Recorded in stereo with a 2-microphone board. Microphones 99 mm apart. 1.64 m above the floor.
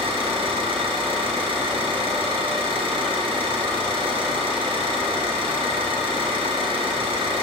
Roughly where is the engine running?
Right.